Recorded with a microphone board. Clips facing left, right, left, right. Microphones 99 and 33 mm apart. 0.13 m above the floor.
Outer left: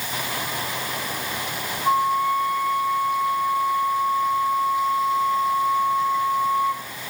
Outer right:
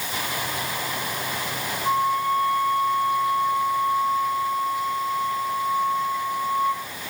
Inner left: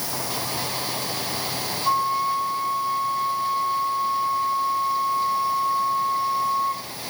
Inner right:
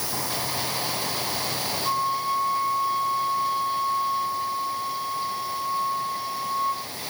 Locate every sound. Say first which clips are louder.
1.9 s a flute: outer left 2 dB, inner left 4 dB; 10° left (ahead or behind), 6 m